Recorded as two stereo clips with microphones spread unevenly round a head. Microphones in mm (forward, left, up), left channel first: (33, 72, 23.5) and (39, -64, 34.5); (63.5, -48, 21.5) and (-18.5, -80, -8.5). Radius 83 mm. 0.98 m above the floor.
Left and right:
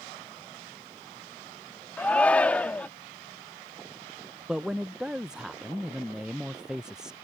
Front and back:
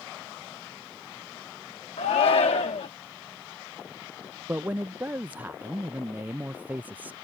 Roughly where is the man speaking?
Behind.